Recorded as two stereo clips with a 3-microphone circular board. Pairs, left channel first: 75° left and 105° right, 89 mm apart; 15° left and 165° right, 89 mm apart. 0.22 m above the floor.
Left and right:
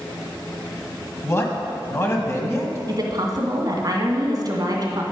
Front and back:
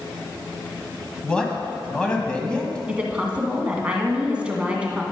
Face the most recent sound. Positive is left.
turn(degrees=-90)